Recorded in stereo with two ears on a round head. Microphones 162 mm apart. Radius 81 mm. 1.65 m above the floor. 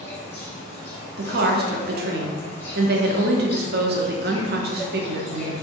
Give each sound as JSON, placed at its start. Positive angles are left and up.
{"t": 0.0, "sound": "an insect", "side_deg": 15, "distance_m": 1.6}
{"t": 1.2, "sound": "a woman speaking", "side_deg": -60, "distance_m": 0.7}